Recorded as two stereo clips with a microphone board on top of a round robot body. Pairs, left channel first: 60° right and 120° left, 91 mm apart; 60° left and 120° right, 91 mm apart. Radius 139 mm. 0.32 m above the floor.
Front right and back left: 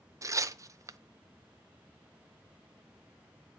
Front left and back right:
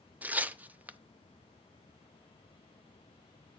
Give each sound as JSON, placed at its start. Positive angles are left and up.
{"t": 0.2, "sound": "tearing paper", "azimuth_deg": 170, "distance_m": 0.7}